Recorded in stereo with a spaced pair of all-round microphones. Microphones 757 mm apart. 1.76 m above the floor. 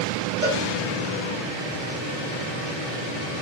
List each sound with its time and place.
0.4 s a cowbell: 15° right (ahead or behind), 1.3 m